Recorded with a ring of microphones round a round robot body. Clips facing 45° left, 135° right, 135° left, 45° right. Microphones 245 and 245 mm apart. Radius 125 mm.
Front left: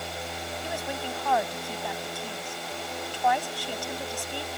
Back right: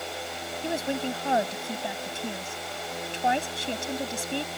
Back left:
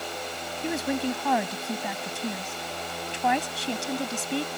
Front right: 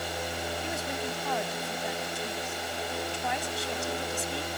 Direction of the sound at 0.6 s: 160° left.